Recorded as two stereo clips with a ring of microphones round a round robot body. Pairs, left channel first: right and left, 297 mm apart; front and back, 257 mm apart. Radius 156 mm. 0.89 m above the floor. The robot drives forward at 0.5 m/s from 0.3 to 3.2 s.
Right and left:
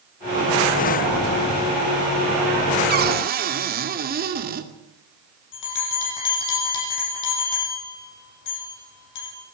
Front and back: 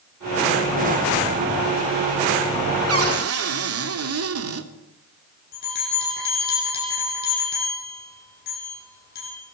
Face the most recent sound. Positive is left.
turn(degrees=-60)